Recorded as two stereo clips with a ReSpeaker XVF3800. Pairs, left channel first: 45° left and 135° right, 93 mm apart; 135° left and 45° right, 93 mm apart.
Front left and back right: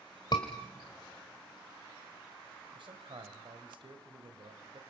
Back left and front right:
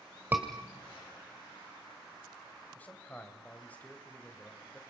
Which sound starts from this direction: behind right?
A man speaking, at 2.8 s.